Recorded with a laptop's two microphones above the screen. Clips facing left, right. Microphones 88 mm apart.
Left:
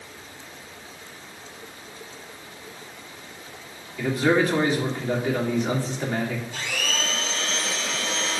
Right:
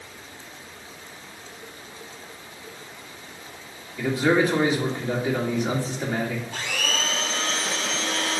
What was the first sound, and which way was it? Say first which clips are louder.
A man speaking: even; 10° right (ahead or behind).